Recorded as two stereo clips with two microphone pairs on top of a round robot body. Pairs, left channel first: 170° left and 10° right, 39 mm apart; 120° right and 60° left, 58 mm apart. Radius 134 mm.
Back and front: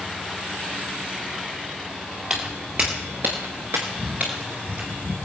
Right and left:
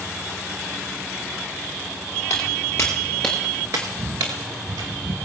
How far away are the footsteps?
About 1.5 m.